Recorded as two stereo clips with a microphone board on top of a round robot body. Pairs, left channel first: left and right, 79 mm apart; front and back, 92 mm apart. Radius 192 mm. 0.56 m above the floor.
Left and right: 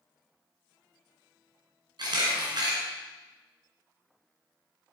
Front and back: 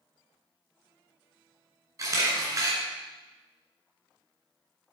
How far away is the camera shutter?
About 2.5 m.